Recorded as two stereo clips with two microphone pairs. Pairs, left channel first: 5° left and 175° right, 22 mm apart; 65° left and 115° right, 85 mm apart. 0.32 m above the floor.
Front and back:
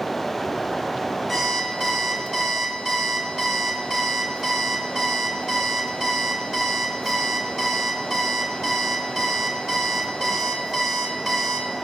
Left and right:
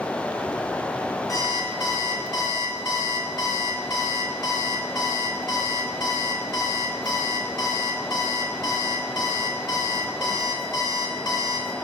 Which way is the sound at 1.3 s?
105° left.